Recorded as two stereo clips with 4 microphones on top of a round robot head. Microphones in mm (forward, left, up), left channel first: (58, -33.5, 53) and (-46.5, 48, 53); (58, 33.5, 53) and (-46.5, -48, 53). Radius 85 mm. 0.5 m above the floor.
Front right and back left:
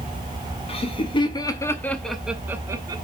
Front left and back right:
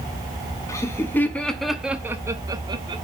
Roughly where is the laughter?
Ahead.